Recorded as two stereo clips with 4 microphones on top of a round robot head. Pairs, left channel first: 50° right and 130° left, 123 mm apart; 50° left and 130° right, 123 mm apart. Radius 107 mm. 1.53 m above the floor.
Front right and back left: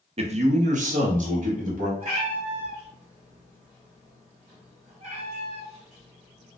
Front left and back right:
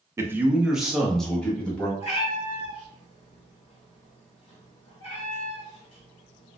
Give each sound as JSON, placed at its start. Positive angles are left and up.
{"t": 0.2, "sound": "a man speaking", "azimuth_deg": 165, "distance_m": 0.6}
{"t": 2.0, "sound": "a cat meowing", "azimuth_deg": 95, "distance_m": 1.2}